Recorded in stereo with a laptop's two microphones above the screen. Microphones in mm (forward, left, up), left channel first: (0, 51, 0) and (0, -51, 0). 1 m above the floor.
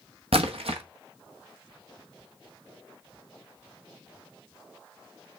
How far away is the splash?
About 0.9 m.